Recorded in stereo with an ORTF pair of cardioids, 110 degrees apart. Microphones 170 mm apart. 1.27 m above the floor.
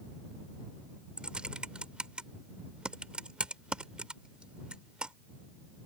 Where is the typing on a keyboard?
5° right.